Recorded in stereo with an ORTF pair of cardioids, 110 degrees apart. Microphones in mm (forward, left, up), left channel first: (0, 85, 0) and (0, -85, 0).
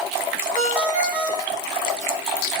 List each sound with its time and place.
0.6 s a ringtone: 55° right, 2 m